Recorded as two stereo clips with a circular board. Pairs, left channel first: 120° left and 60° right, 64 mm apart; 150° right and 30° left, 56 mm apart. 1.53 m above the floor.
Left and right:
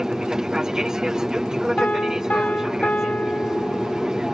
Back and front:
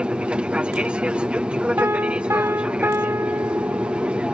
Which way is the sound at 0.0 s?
5° left.